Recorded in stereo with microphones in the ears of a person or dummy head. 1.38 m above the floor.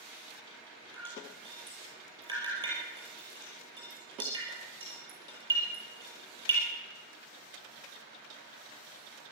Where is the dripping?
25° right (ahead or behind), 5.5 m.